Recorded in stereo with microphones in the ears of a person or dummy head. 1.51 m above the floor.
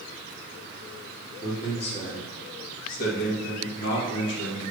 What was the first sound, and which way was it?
A man speaking, 25° left (ahead or behind).